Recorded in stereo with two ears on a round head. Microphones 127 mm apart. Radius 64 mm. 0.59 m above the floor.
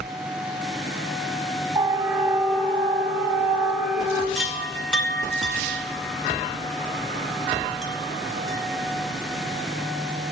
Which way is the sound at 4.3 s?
5° left (ahead or behind).